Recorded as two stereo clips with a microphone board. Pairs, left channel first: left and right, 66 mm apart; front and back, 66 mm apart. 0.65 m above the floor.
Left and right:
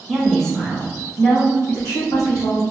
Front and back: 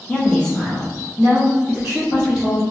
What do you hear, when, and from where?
0.1 s a woman speaking: 20° right, 1.0 m; by 2.6 s 105° left, 1.9 m